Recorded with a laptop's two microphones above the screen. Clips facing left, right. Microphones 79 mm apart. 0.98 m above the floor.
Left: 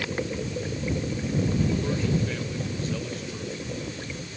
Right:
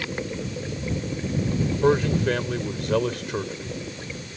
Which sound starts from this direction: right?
A man speaking, at 1.8 s.